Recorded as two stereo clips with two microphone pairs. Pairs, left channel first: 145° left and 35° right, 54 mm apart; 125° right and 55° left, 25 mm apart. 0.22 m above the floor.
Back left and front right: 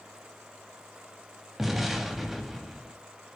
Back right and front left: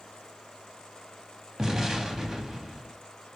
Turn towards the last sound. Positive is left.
turn(degrees=40)